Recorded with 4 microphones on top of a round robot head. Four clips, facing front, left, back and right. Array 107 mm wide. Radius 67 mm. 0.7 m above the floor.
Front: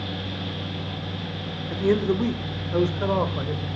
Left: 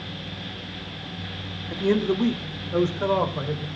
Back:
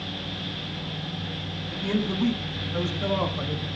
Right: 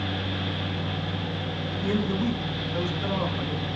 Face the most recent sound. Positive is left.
turn(degrees=45)